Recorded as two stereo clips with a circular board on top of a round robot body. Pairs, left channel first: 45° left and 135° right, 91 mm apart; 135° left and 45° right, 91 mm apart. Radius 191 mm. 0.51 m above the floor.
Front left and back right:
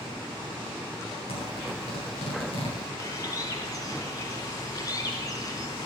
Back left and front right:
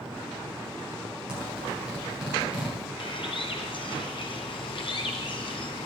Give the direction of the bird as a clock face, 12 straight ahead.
9 o'clock.